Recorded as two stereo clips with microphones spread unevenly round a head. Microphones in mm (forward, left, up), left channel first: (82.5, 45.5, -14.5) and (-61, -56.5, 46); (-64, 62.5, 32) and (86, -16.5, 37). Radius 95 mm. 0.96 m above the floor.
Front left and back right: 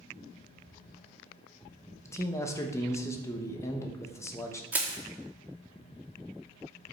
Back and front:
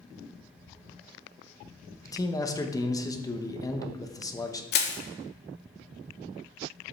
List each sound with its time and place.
2.0 s a man speaking: 90° left, 1.2 m
4.7 s crushing: 130° left, 1.7 m